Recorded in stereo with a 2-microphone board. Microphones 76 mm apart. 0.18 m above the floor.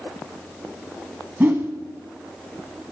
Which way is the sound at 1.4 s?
25° right (ahead or behind).